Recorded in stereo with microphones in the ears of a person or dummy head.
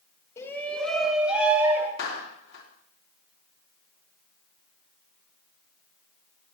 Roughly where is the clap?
Left.